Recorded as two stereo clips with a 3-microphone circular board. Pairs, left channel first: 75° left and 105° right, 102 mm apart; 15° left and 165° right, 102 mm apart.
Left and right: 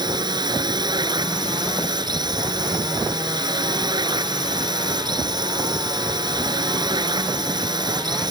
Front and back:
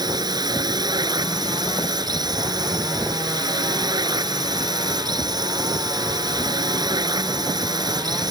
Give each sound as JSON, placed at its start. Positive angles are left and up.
{"t": 0.0, "sound": "a drone", "azimuth_deg": -135}